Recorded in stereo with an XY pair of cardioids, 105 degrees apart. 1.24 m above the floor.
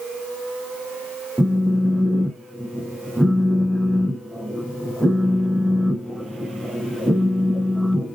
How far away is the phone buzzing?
About 0.6 m.